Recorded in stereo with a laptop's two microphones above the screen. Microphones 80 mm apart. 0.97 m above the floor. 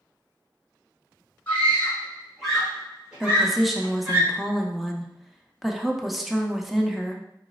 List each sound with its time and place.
1.5 s a scream: 20° left (ahead or behind), 2.0 m; by 4.2 s 30° right (ahead or behind), 1.9 m
3.2 s a woman speaking: centre (ahead or behind), 0.7 m